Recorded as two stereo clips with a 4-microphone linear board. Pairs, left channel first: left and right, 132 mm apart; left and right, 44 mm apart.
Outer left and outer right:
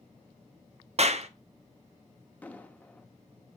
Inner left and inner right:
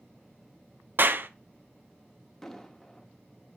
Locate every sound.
1.0 s a clap: 55° right (ahead or behind), 0.8 m
2.4 s an explosion: 10° left (ahead or behind), 1.1 m